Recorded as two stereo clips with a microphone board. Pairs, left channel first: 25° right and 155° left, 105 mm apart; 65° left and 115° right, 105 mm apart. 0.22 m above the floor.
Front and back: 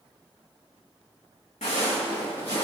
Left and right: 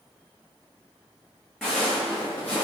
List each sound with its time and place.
1.6 s footsteps: 20° right, 1.3 m; by 2.6 s 5° right, 1.8 m